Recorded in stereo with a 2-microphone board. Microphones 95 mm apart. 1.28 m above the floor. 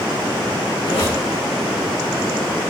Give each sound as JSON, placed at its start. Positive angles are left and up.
{"t": 0.8, "sound": "a squeak", "side_deg": 70, "distance_m": 8.0}